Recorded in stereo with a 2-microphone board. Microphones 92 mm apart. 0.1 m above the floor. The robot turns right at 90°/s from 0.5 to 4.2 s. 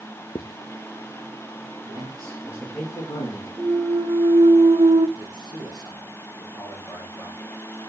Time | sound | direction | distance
0.3 | writing | 50° left (ahead or behind) | 0.7 m
1.9 | a man speaking | 75° right | 8 m
3.6 | a clunk | 165° right | 1.0 m
5.2 | a man speaking | 45° left (ahead or behind) | 7 m